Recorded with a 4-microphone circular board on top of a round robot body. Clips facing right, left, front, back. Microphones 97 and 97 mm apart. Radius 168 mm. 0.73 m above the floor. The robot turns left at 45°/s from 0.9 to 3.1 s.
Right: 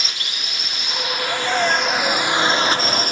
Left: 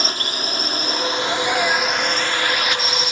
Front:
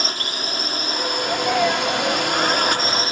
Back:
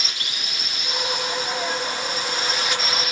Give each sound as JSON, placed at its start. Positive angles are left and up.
{"t": 0.0, "sound": "a drone", "azimuth_deg": 45}
{"t": 1.2, "sound": "a sneeze", "azimuth_deg": 10}